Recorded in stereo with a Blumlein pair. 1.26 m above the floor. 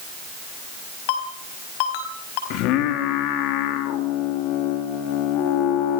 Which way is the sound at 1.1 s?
45° left.